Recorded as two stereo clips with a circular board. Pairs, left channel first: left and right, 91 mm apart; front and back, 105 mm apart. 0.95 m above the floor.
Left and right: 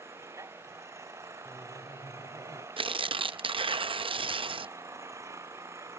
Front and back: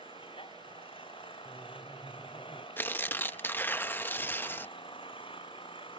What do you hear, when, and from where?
0.0 s an engine running: 35° right
1.4 s laughter: 90° left
2.8 s tearing paper: 70° right